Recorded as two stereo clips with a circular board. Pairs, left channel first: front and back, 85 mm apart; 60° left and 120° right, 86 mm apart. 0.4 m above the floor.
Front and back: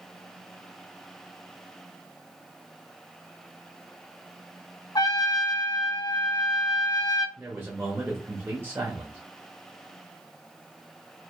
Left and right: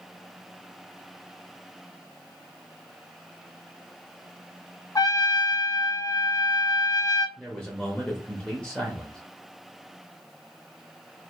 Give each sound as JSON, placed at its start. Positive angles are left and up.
{"t": 5.0, "sound": "a trumpet", "azimuth_deg": 25, "distance_m": 0.7}
{"t": 7.4, "sound": "a man speaking", "azimuth_deg": 135, "distance_m": 1.2}